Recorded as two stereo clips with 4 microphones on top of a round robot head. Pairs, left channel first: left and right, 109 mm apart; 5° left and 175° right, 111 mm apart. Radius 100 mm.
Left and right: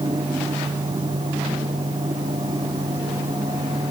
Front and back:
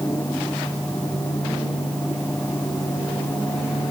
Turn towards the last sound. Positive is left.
No sound to turn to.